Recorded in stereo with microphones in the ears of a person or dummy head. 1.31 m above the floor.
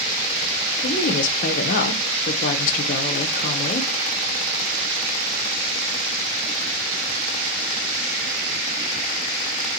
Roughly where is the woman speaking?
Left.